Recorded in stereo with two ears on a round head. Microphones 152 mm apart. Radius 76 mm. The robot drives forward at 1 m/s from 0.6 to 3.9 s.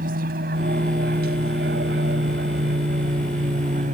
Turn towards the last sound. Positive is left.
turn(degrees=-50)  # may be behind; listen again after turning